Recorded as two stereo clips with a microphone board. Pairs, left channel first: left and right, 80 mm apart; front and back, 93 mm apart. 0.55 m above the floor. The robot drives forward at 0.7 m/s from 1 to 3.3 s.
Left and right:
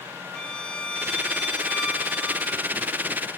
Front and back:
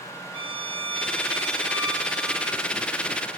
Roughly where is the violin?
Behind.